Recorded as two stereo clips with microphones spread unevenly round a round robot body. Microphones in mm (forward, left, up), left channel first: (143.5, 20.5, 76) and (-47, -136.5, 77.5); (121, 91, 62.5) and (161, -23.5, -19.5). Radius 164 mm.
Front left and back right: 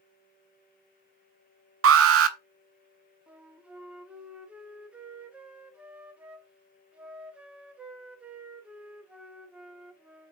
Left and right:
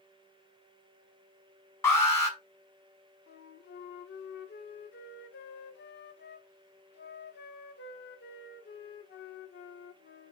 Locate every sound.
1.8 s an alarm: 150° right, 1.3 m
3.3 s a flute: 135° left, 1.0 m